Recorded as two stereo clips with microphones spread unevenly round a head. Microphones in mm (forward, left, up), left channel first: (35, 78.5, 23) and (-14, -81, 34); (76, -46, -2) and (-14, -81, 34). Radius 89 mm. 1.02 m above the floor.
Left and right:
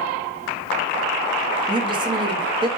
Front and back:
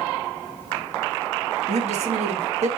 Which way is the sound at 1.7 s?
170° right.